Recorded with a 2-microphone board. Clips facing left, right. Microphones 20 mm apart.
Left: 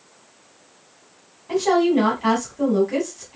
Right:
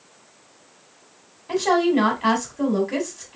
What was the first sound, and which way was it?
A woman speaking, 20° right (ahead or behind).